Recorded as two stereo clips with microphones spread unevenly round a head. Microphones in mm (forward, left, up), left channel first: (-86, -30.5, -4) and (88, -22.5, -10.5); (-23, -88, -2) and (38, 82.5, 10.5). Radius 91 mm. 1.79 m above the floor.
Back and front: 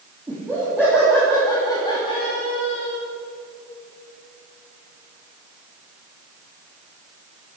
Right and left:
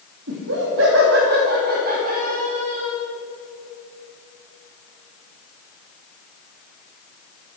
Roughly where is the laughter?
Left.